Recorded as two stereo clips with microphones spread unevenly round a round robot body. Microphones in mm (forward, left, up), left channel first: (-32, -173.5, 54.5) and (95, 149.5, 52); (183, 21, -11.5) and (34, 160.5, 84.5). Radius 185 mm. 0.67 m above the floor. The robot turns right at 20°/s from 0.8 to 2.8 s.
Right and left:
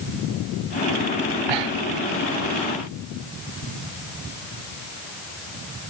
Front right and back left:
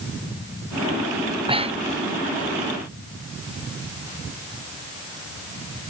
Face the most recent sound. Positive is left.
turn(degrees=100)